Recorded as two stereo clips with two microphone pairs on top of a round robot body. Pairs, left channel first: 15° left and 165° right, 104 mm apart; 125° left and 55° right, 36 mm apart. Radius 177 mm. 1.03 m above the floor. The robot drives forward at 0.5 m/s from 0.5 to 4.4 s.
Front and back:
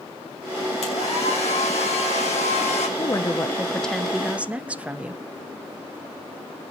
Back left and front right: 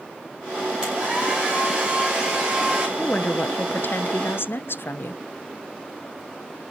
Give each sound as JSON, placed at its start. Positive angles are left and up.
{"t": 0.8, "sound": "a hair dryer", "azimuth_deg": 10, "distance_m": 6.0}
{"t": 3.0, "sound": "a woman speaking", "azimuth_deg": 70, "distance_m": 0.9}